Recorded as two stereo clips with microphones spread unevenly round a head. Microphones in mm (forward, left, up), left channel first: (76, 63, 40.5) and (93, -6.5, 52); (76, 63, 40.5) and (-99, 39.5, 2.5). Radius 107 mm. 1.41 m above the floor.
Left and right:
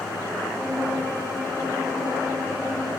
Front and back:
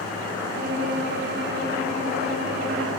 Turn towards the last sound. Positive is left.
turn(degrees=-140)